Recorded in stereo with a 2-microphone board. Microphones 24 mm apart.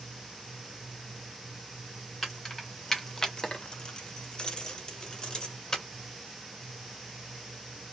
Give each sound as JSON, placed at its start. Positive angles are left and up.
{"t": 2.2, "sound": "keys jangling", "side_deg": 5, "distance_m": 1.1}